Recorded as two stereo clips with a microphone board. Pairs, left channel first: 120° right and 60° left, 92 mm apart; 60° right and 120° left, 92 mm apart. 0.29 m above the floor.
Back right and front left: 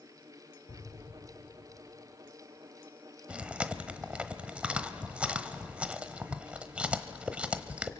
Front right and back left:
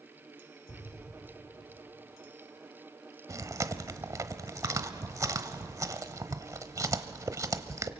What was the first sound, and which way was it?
An explosion, 105° right.